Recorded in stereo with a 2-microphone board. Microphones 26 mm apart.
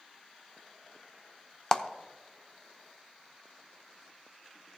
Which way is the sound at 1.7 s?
20° left (ahead or behind).